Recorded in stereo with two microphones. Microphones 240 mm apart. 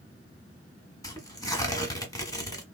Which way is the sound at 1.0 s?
15° left (ahead or behind).